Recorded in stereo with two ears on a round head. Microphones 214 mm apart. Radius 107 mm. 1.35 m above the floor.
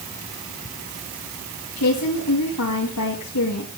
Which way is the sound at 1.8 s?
75° left (ahead or behind).